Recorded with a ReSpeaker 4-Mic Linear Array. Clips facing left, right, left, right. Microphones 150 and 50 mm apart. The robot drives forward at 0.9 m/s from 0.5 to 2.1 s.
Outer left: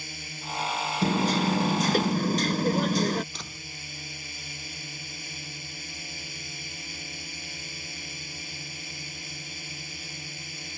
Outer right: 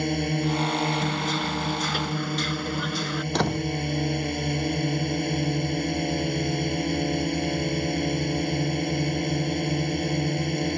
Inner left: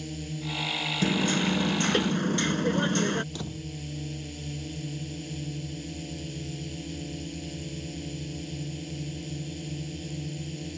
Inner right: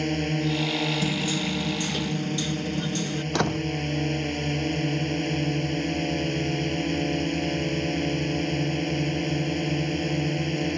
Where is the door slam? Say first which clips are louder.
Outer right 20 dB, inner right 12 dB; 70° right (ahead or behind).